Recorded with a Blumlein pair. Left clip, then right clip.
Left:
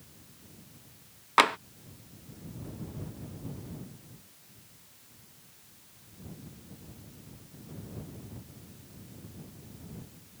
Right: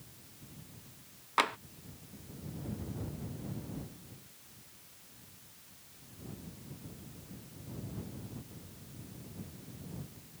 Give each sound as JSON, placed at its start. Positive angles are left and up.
{"t": 1.4, "sound": "tapping", "azimuth_deg": 25}